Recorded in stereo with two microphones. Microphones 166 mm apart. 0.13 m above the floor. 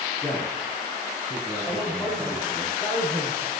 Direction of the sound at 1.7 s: 5° left (ahead or behind).